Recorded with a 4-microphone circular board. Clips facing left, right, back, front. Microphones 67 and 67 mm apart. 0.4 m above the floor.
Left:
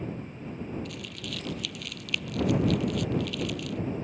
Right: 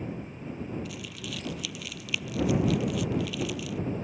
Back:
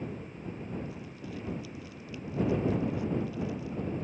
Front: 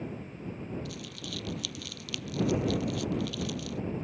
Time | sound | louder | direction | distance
0.8 | crumpling | even, even | 5° right | ?